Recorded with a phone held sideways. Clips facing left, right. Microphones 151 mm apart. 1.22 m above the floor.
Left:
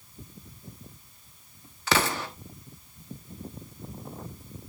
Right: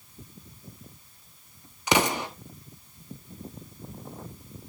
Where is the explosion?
20° right (ahead or behind), 1.5 m.